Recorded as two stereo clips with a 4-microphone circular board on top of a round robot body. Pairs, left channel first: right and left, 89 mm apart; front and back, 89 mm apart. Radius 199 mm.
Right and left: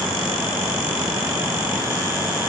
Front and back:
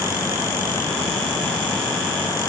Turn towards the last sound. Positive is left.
No sound to turn to.